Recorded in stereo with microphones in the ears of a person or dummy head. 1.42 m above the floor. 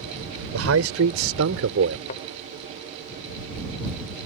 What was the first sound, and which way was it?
A man speaking, 85° right.